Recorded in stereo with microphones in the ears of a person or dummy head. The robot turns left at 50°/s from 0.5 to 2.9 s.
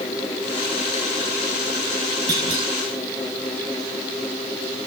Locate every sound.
2.3 s a clunk: 15° right (ahead or behind), 7 m; by 2.6 s 35° right (ahead or behind), 7 m